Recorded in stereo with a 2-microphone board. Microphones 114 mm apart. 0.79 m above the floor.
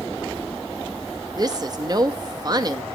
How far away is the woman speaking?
About 0.6 m.